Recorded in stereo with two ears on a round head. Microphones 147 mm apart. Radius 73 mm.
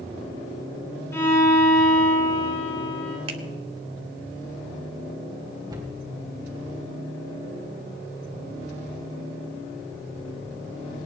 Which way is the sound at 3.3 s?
35° right (ahead or behind).